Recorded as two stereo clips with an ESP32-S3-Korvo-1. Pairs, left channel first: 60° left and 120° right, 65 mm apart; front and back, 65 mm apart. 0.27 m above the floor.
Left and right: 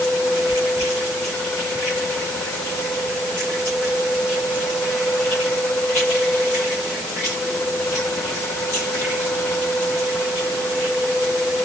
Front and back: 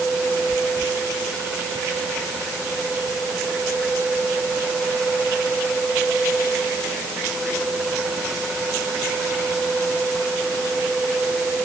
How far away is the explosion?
I don't hear an explosion.